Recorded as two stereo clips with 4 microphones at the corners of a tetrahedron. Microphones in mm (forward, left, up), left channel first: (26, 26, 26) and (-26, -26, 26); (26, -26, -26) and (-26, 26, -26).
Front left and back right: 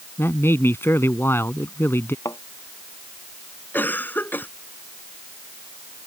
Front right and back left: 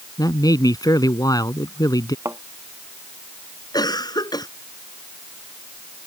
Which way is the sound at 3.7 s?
20° right.